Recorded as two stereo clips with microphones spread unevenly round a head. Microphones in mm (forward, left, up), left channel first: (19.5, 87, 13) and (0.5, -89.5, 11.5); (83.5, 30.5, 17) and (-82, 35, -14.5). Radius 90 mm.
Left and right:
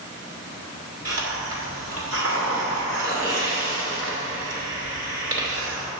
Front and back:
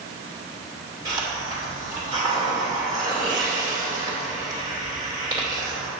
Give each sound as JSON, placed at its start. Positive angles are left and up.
{"t": 1.1, "sound": "a hiss", "azimuth_deg": -105, "distance_m": 2.5}